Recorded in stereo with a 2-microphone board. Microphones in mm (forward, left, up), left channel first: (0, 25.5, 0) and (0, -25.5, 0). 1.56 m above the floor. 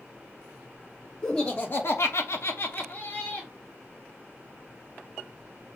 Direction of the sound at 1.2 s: 20° left (ahead or behind).